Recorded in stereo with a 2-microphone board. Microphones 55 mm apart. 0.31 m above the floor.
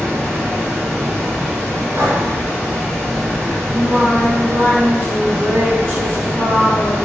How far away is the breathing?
About 0.9 m.